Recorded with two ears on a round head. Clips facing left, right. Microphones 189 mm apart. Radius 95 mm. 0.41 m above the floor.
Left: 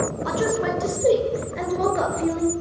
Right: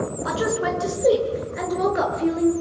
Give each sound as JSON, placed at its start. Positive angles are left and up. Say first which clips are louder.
{"t": 0.2, "sound": "a woman speaking", "louder": "even", "side_deg": -5, "distance_m": 6.0}